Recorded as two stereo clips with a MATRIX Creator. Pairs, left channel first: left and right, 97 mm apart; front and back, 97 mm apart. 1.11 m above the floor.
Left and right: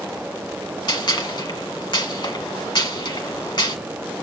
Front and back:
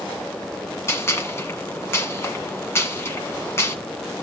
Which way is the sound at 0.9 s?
60° left.